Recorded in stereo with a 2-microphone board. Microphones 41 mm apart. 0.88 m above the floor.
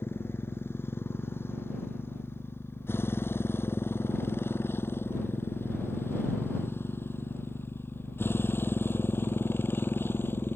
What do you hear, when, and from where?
0.0 s a motorcycle: 85° left; by 10.6 s 70° left (ahead or behind)